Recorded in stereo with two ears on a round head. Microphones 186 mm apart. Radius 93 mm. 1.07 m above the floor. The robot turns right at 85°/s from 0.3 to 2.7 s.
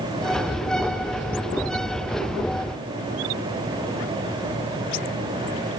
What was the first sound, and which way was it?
Only background noise.